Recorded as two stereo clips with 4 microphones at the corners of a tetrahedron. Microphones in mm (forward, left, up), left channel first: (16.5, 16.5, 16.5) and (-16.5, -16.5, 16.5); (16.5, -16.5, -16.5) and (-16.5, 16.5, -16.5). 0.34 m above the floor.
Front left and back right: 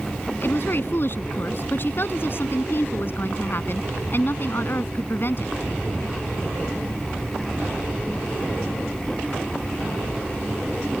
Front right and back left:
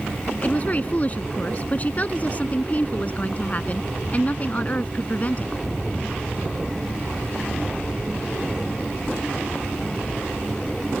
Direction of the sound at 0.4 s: 10° left.